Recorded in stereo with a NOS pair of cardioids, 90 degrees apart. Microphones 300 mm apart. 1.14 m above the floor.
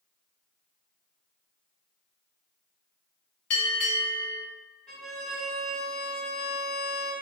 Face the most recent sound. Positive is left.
turn(degrees=0)